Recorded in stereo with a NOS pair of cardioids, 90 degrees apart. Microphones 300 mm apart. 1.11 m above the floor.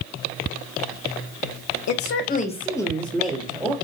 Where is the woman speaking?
65° left, 0.7 m; by 3.8 s 5° right, 2.0 m.